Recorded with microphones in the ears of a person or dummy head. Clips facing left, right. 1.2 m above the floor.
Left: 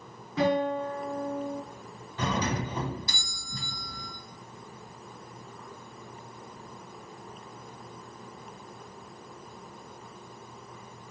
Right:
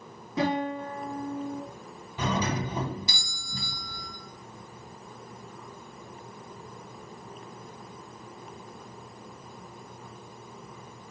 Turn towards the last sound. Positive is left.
turn(degrees=-5)  # may be behind; listen again after turning